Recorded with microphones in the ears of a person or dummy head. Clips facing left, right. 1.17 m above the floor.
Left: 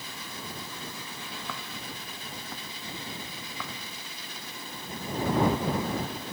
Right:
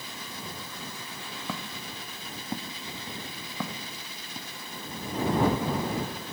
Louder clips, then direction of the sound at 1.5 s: Right 2 dB; 20° right (ahead or behind).